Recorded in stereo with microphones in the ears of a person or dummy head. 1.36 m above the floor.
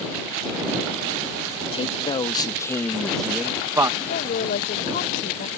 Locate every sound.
1.7 s a man speaking: 30° left (ahead or behind); by 3.9 s 20° right (ahead or behind)
4.0 s a woman speaking: 45° left (ahead or behind)